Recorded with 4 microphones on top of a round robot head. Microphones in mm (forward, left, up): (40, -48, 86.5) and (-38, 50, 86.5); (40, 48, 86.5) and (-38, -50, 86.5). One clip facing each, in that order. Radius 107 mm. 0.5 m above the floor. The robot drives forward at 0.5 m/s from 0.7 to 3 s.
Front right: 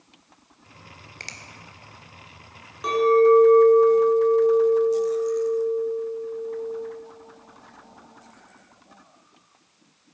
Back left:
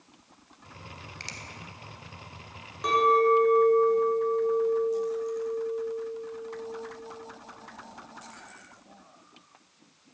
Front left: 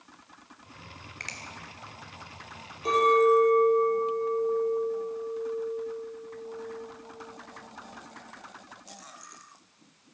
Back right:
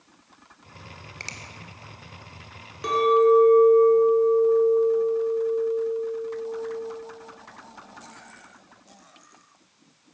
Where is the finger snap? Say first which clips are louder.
Even, back right 2 dB; 75° right, 1.8 m; by 1.4 s 80° right, 1.7 m.